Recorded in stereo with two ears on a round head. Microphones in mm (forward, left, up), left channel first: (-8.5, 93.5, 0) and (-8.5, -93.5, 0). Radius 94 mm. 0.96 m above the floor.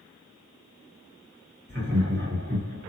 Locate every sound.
1.7 s laughter: 55° right (ahead or behind), 1.4 m